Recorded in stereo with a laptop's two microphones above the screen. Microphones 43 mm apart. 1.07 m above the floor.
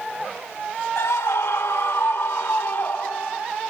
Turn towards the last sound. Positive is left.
turn(degrees=55)  # may be behind; listen again after turning